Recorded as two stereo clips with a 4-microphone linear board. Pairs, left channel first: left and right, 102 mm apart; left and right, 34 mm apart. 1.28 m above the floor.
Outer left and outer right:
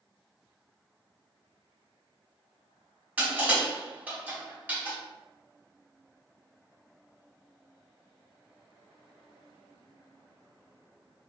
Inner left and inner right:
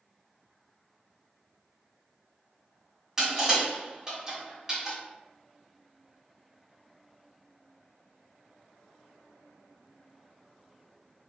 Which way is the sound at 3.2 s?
15° right (ahead or behind).